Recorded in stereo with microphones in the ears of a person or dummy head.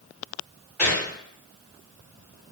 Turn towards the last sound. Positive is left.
turn(degrees=10)  # may be behind; listen again after turning